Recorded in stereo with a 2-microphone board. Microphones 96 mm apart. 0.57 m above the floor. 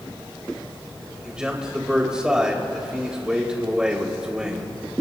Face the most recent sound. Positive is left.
turn(degrees=-10)  # may be behind; listen again after turning